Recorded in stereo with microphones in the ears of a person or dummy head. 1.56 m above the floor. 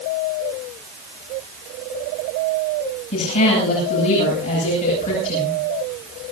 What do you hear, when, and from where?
3.1 s a woman speaking: 40° left (ahead or behind), 10 m